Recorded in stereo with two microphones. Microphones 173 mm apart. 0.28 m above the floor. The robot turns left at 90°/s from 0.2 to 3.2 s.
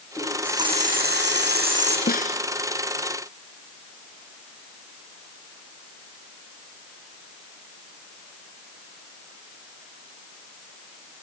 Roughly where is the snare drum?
Left.